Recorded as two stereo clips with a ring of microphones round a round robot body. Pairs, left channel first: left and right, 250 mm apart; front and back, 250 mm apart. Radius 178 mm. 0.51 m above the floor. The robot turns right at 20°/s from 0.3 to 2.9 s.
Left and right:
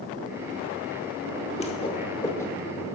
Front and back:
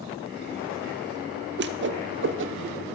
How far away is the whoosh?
About 1.0 m.